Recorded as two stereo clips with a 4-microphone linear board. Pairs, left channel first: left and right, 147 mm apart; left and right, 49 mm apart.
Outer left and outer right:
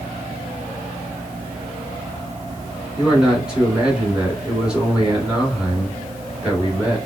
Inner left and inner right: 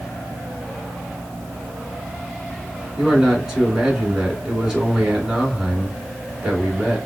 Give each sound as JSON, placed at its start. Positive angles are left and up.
{"t": 3.0, "sound": "a man speaking", "side_deg": -5, "distance_m": 1.7}